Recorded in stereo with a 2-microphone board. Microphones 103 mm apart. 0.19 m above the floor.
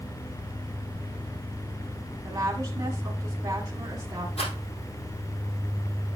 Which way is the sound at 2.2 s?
30° right (ahead or behind).